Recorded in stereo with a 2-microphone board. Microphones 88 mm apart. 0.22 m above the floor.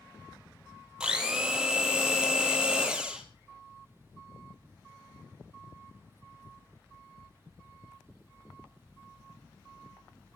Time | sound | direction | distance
1.0 | a blender | 10° right (ahead or behind) | 1.7 m